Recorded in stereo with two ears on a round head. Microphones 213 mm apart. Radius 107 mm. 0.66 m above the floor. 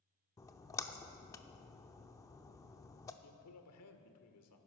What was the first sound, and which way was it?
A splash, 15° left (ahead or behind).